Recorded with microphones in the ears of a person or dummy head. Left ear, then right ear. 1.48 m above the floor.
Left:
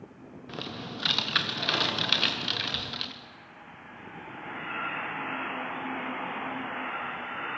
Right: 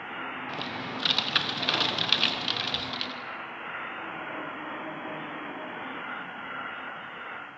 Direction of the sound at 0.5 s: 10° right (ahead or behind).